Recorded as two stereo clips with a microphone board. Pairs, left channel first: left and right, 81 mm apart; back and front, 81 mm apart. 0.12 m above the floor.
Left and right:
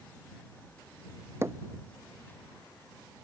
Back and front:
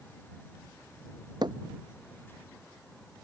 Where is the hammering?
30° right.